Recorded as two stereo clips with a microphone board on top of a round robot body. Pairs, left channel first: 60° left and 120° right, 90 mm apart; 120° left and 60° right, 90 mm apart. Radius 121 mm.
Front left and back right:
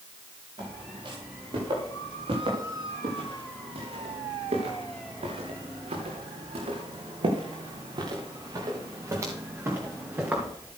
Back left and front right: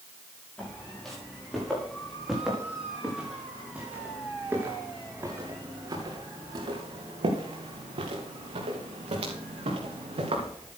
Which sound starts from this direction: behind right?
Footsteps, at 0.6 s.